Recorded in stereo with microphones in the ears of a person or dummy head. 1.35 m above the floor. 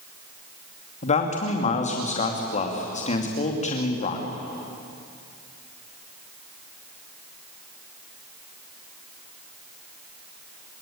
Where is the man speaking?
40° left (ahead or behind), 3 m.